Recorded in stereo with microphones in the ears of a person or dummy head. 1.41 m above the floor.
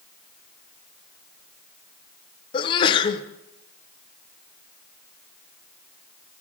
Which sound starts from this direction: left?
A sneeze, at 2.5 s.